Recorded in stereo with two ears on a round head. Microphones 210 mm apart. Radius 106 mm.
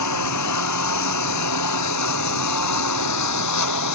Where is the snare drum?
No snare drum in this recording.